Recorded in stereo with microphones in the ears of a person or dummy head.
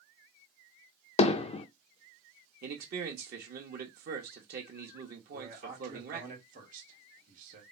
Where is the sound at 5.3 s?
45° right (ahead or behind), 2.5 m.